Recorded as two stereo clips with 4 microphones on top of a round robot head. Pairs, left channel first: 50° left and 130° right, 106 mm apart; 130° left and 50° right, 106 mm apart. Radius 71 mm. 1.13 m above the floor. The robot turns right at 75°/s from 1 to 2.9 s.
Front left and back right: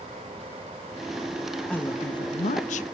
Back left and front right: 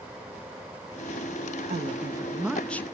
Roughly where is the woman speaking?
Ahead right.